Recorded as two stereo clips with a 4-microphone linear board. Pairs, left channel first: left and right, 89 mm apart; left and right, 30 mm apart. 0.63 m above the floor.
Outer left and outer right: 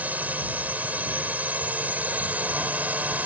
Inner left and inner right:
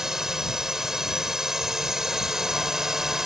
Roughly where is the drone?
Centre.